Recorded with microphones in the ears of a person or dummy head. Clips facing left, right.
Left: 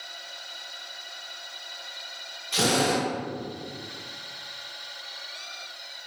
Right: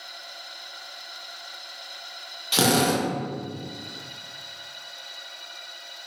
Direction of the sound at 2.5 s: 85° right.